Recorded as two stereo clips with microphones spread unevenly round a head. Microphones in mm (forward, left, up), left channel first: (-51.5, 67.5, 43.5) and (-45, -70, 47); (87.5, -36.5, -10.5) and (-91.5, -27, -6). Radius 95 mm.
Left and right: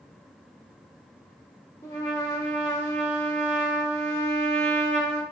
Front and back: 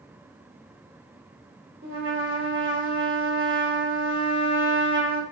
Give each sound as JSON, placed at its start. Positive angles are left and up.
{"t": 1.8, "sound": "a trumpet", "azimuth_deg": 160, "distance_m": 1.2}